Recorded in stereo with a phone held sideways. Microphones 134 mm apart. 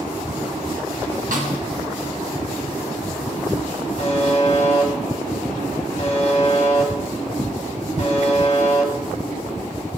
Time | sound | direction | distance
1.3 | a snare drum | 65° right (ahead or behind) | 1.1 m
4.0 | a buzzer | 45° left (ahead or behind) | 1.2 m